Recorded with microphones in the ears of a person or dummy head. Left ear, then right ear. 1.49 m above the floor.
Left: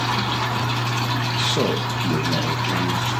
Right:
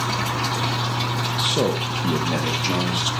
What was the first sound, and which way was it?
A man speaking, centre (ahead or behind).